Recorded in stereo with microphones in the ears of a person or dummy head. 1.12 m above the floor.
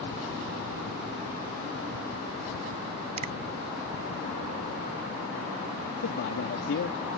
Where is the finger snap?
35° right (ahead or behind).